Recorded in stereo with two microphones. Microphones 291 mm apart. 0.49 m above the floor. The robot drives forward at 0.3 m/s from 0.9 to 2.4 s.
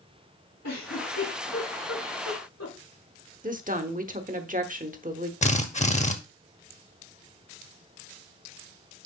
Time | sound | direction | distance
0.6 | a giggle | 70° left (ahead or behind) | 4.5 m
3.4 | a woman speaking | 30° right (ahead or behind) | 0.8 m
5.4 | a drill | 25° left (ahead or behind) | 0.8 m